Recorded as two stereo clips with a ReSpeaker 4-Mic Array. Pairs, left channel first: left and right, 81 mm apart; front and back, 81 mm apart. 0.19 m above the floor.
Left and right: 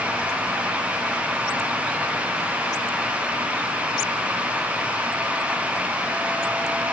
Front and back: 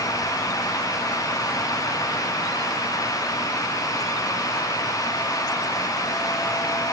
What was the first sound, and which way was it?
Only background noise.